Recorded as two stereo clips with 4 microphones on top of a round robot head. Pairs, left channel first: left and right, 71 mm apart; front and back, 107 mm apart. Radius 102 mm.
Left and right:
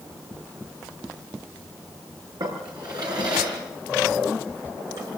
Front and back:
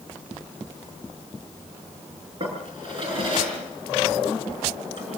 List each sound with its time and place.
2.4 s a drawer: 130° right, 5.5 m